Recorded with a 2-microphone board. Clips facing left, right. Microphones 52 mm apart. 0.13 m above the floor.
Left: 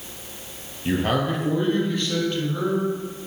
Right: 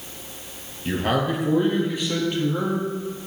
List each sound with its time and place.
0.8 s a man speaking: 5° left (ahead or behind), 2.5 m; by 2.9 s 25° right (ahead or behind), 3.5 m